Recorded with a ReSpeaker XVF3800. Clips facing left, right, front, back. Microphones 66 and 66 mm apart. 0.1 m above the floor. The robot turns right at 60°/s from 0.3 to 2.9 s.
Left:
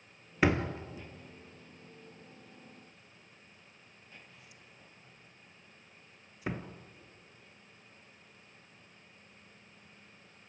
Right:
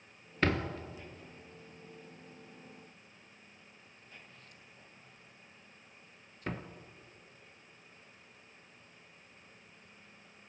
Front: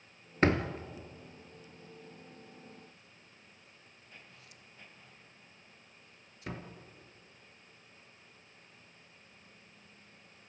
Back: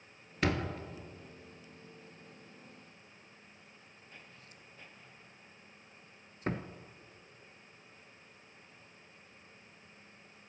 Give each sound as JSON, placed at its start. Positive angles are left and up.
{"t": 0.4, "sound": "a door slam", "azimuth_deg": 15, "distance_m": 1.4}